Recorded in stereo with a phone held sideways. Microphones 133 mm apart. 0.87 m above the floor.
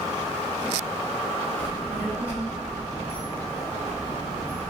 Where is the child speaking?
15° right (ahead or behind), 1.3 m.